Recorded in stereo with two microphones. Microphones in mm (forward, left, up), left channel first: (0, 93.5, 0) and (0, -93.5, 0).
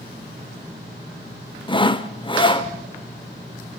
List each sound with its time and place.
1.7 s sawing: 25° left (ahead or behind), 0.8 m